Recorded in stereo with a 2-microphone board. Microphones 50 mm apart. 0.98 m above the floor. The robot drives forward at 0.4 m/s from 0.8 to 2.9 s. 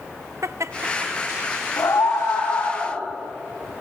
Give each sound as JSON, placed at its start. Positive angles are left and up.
{"t": 0.4, "sound": "laughter", "side_deg": -80, "distance_m": 0.9}
{"t": 1.8, "sound": "a scream", "side_deg": 80, "distance_m": 5.5}